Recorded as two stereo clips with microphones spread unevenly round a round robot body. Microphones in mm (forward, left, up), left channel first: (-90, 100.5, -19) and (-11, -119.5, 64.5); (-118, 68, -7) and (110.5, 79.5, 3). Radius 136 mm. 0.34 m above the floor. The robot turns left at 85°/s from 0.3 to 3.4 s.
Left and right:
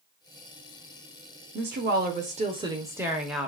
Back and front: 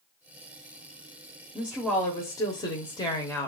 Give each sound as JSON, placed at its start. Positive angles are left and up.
{"t": 1.6, "sound": "a woman speaking", "azimuth_deg": -70, "distance_m": 1.0}